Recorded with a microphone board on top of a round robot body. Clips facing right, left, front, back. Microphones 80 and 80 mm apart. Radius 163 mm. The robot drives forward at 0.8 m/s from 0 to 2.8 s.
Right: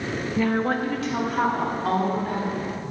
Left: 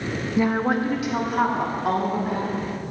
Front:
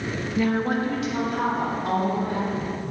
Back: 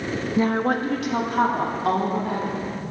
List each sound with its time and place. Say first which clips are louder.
0.4 s a woman speaking: left 2 dB, back 2 dB; 150° left, 0.7 m; by 2.6 s 175° left, 2 m